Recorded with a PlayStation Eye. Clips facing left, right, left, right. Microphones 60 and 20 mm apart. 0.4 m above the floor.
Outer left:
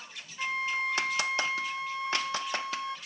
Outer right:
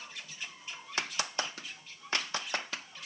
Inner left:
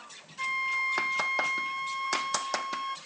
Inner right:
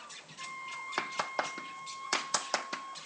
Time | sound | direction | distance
0.4 | a flute | 80° left | ?